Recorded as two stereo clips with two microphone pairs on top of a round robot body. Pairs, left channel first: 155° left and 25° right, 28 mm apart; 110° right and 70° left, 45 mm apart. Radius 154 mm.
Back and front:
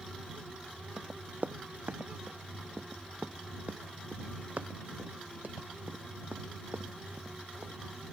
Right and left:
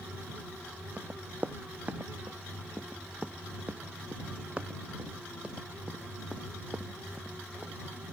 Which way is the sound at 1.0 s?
10° left.